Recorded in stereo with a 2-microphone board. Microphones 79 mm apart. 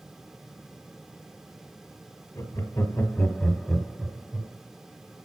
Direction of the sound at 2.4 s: 50° left (ahead or behind).